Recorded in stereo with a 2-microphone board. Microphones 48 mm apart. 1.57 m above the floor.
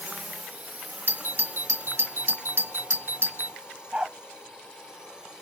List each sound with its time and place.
0.0 s a drone: 40° right (ahead or behind); by 5.4 s 15° right (ahead or behind)
1.1 s a doorbell: 50° right (ahead or behind)
3.9 s a dog barking: 20° right (ahead or behind)